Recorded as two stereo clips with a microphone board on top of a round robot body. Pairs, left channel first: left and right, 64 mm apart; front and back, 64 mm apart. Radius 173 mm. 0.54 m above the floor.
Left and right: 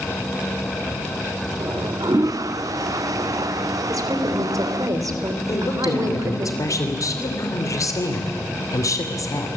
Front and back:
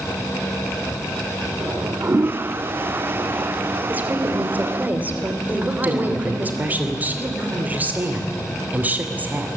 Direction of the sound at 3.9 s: 115° right.